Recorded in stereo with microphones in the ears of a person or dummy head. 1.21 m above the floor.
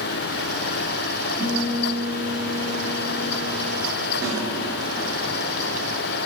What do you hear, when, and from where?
1.4 s a guitar: 10° left (ahead or behind), 2.5 m
4.2 s a snare drum: 15° right (ahead or behind), 2.5 m